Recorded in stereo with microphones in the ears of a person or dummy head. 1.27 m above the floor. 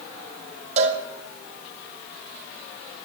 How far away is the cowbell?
About 1.4 m.